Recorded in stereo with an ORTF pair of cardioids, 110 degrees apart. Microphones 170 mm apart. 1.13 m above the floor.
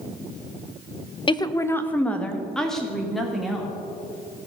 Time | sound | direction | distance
1.3 | a woman speaking | 30° left | 0.5 m